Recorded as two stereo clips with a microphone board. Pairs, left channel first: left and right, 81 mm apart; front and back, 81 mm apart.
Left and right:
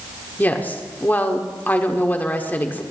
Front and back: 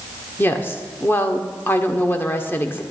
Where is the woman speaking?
40° left, 1.2 m.